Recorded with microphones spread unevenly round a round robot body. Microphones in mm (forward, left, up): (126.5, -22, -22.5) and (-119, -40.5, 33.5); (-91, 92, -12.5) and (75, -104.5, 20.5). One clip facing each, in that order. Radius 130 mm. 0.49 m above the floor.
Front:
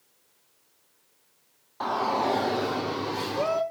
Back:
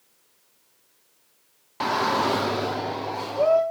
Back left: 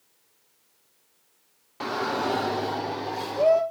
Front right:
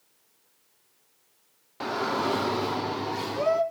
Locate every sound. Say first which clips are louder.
1.8 s a shout: back 3 dB, even; 160° right, 0.8 m; by 3.6 s 20° left, 1.1 m